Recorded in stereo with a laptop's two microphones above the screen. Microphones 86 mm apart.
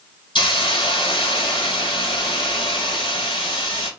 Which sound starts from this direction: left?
A hiss, at 0.3 s.